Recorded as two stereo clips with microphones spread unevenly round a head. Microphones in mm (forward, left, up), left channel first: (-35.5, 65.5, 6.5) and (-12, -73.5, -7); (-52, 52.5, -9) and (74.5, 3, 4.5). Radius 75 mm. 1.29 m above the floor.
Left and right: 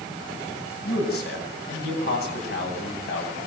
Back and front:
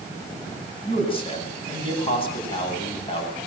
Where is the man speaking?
110° left, 9 m.